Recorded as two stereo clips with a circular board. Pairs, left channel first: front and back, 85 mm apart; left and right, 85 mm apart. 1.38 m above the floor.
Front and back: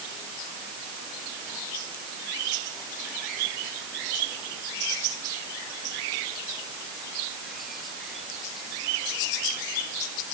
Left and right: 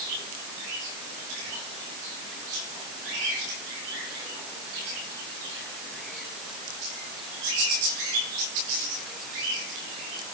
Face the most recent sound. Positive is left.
No sound to turn to.